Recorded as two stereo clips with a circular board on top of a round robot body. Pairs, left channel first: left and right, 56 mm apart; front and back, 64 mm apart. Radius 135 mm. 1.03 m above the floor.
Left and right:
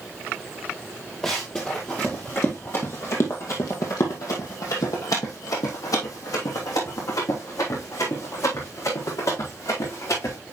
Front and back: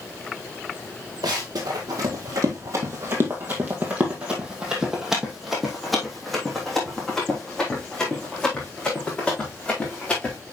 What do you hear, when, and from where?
1.2 s running footsteps: 170° left, 1.7 m; by 10.4 s 75° left, 4.5 m